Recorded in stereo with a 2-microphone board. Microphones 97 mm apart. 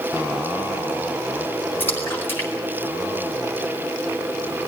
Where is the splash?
20° left (ahead or behind), 4.5 m.